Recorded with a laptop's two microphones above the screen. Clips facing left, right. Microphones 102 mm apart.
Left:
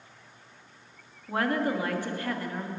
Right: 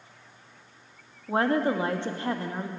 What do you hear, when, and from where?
1.3 s a woman speaking: 25° right (ahead or behind), 1.1 m